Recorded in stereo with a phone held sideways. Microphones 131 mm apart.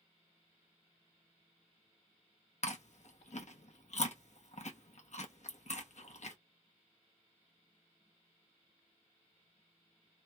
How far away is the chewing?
About 0.7 m.